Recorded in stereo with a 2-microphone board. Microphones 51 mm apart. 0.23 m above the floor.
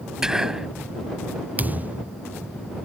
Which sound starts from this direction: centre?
Whispering, at 0.2 s.